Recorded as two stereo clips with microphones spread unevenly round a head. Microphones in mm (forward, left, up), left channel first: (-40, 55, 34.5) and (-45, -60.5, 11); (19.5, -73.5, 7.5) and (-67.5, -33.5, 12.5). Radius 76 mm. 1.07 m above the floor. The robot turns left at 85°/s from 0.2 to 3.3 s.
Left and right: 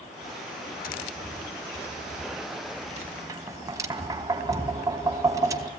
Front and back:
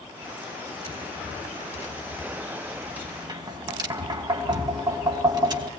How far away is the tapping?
About 3.5 m.